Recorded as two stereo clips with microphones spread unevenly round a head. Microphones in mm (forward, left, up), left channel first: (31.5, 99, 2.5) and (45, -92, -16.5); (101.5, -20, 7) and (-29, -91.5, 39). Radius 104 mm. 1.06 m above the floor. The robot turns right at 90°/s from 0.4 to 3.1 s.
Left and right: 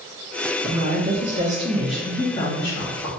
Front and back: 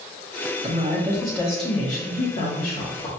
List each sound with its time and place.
0.6 s a woman speaking: 115° right, 1.1 m; by 3.1 s 105° left, 1.1 m